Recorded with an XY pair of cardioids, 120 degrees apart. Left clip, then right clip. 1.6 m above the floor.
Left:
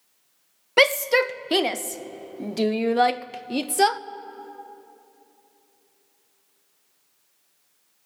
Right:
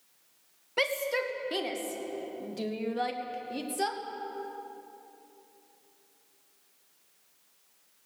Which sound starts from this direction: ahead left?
A shout, at 0.8 s.